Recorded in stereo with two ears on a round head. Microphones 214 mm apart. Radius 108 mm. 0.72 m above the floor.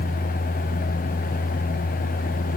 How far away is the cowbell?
I don't hear a cowbell.